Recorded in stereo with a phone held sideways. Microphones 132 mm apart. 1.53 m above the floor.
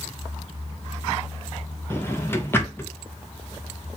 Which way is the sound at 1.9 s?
20° left (ahead or behind).